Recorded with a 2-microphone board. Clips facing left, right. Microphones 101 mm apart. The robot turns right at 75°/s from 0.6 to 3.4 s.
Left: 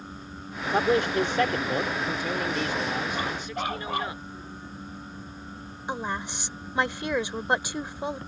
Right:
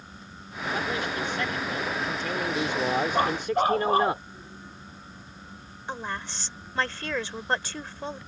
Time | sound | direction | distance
0.7 | a man speaking | 60° left | ?
3.1 | a dog barking | 55° right (ahead or behind) | ?
5.9 | a woman speaking | 15° left (ahead or behind) | ?